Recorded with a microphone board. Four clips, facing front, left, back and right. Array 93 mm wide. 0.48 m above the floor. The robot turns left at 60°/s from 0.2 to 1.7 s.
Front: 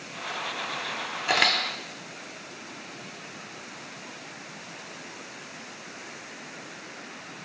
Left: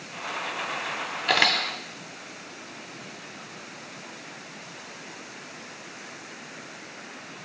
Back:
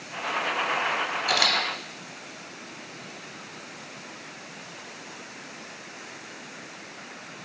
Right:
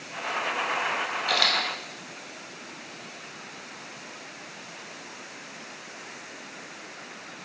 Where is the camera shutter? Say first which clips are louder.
Left 5 dB, front 3 dB; 65° left, 0.5 m; by 1.6 s 45° left, 0.5 m.